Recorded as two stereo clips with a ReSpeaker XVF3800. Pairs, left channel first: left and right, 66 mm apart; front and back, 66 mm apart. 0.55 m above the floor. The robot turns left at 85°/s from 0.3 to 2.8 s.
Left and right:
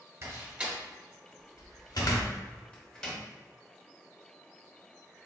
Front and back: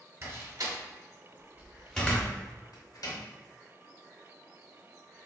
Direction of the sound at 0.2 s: 135° right.